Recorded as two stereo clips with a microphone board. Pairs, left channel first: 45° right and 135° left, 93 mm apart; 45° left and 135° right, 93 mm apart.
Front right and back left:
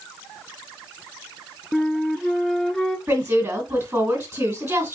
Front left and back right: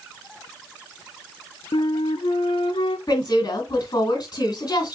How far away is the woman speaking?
About 2.5 m.